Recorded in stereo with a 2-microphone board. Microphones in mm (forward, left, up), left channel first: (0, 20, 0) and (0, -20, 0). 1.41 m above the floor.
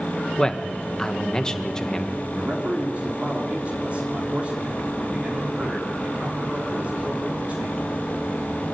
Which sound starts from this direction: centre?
A man speaking, at 0.4 s.